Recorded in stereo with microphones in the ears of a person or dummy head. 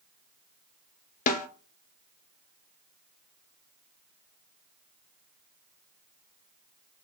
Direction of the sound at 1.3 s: 45° left (ahead or behind).